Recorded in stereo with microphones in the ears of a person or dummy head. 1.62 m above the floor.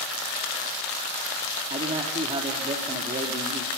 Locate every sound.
1.7 s a man speaking: 30° right (ahead or behind), 3 m